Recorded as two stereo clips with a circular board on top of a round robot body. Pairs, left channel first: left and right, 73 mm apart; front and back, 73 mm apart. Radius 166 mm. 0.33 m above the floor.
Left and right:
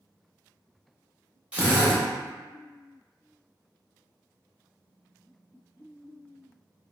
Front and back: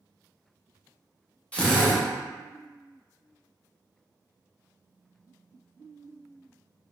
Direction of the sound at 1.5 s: 45° right.